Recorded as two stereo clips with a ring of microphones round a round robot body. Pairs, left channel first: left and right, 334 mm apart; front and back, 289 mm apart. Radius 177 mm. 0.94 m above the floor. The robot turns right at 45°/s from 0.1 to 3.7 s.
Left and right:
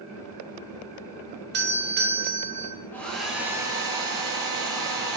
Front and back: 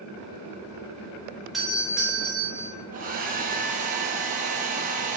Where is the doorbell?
90° right, 0.7 m; by 2.8 s 35° right, 0.7 m.